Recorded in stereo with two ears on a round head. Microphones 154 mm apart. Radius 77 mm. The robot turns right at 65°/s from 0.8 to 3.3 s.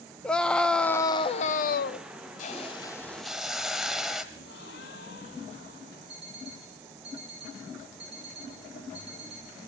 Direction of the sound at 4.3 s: 70° left (ahead or behind).